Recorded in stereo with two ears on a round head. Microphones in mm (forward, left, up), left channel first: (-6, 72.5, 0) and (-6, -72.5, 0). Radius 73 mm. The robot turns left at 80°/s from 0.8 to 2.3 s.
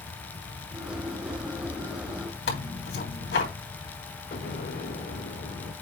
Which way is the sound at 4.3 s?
55° left (ahead or behind).